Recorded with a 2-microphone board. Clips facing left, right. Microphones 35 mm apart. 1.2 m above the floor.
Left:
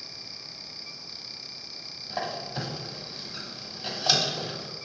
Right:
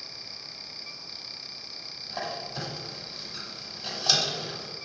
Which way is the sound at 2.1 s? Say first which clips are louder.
Left 2 dB; 20° left (ahead or behind).